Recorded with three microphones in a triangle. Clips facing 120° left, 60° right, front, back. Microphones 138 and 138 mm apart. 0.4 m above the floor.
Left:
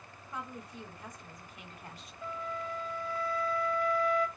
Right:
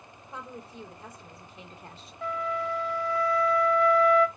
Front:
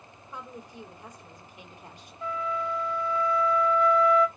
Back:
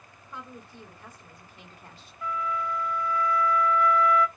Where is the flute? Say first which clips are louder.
Right 8 dB, even; 60° right, 0.5 m.